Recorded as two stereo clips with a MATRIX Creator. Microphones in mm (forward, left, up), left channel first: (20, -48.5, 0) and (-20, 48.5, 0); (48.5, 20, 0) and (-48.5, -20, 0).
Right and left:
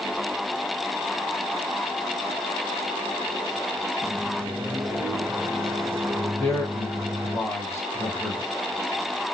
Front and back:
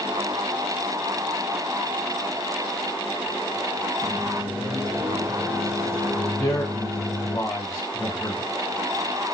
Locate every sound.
4.0 s a microwave: 160° left, 0.8 m
6.4 s a man speaking: 20° right, 1.6 m